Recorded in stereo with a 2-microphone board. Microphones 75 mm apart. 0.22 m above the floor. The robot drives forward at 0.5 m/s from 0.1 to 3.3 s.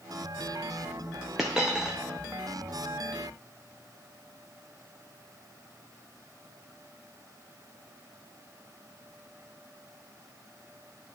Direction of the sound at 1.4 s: 5° right (ahead or behind).